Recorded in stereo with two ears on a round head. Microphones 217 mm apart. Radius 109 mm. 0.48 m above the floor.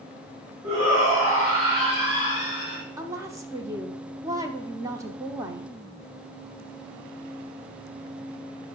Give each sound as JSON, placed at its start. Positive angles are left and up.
{"t": 0.6, "sound": "a shout", "side_deg": -20, "distance_m": 4.5}
{"t": 3.0, "sound": "a woman speaking", "side_deg": -15, "distance_m": 0.8}